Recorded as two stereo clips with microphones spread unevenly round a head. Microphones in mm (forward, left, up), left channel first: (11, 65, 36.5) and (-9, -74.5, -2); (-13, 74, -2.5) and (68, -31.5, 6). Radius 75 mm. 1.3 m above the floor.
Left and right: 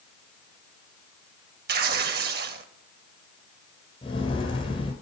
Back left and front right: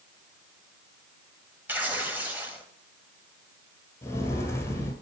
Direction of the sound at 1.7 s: 130° right.